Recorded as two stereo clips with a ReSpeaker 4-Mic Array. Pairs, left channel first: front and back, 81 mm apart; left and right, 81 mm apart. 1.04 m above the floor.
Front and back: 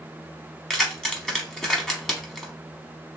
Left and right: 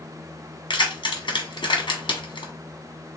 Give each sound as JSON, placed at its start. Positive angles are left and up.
{"t": 0.7, "sound": "keys jangling", "azimuth_deg": 85, "distance_m": 1.0}